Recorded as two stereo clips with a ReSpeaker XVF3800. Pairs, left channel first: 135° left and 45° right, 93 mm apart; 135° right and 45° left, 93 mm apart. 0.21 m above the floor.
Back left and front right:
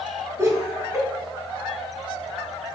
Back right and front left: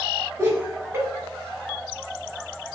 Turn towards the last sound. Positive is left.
turn(degrees=-5)